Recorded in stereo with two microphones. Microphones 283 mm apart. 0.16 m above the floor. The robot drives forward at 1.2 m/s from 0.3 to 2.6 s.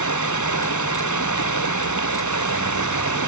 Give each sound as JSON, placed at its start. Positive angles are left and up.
{"t": 0.0, "sound": "running water", "side_deg": 90}